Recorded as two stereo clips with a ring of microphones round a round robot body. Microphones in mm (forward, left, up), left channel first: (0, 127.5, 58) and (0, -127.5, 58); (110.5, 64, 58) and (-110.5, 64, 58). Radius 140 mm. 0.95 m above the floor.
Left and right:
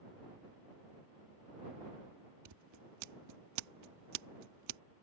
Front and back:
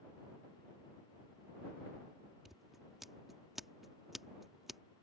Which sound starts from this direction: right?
Scissors, at 2.5 s.